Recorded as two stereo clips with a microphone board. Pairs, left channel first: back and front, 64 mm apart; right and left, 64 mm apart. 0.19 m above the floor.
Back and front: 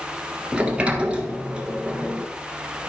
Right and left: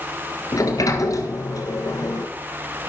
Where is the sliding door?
75° right, 1.4 m.